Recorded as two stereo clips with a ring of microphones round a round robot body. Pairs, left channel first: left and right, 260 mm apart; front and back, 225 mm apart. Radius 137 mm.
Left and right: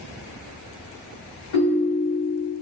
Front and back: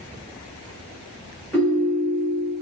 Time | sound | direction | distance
1.5 | a ringtone | 85° left | 1.5 m